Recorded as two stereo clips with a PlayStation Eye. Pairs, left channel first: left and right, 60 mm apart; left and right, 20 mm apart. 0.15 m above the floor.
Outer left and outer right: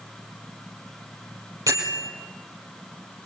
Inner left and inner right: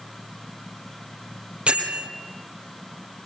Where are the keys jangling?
I don't hear keys jangling.